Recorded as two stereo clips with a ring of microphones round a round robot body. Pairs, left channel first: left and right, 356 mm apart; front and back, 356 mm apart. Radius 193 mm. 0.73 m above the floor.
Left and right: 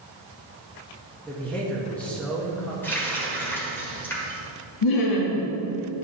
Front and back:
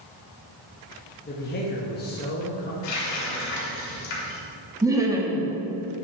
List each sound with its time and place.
1.2 s a man speaking: 10° left, 1.0 m
2.8 s a running tap: 5° left, 2 m
4.8 s laughter: 100° left, 0.9 m